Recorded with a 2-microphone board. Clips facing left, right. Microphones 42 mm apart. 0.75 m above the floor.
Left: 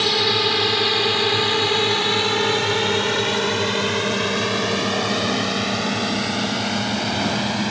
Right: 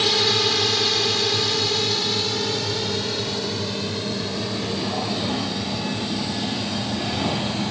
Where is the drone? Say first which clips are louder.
Left 1 dB; 10° left (ahead or behind); by 7.7 s 75° left (ahead or behind).